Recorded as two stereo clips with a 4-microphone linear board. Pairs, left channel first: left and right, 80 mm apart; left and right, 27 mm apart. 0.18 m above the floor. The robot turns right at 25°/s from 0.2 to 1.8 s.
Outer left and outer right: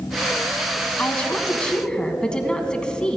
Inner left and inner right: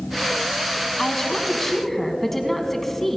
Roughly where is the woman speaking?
Left.